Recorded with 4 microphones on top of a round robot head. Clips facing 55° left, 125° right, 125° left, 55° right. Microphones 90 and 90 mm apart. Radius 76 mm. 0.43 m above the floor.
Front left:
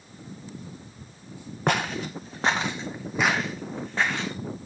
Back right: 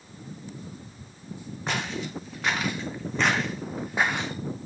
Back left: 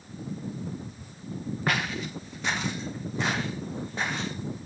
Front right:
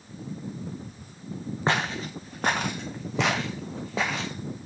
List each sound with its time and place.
1.7 s footsteps: 15° left, 1.8 m; by 4.3 s 50° right, 2 m